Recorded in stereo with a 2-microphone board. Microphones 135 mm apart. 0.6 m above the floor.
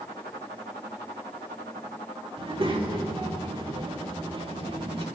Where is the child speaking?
40° right (ahead or behind), 1.2 m.